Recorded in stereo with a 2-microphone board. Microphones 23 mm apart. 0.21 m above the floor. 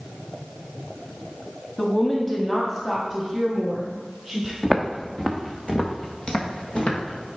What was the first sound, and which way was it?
A woman speaking, 25° left (ahead or behind).